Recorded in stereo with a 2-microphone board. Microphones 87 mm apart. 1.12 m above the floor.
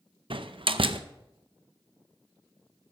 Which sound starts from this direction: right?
A door slam, at 0.3 s.